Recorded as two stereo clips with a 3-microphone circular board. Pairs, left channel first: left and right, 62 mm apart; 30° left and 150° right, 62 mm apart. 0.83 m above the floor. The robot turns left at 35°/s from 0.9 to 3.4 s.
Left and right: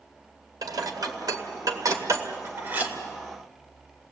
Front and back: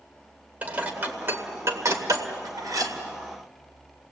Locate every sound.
0.6 s dishes clattering: 85° right, 2 m; by 2.9 s 155° right, 2 m